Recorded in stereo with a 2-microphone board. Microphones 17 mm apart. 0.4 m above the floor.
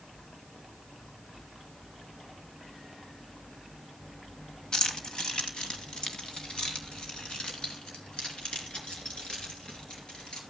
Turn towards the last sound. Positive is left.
turn(degrees=65)  # may be behind; listen again after turning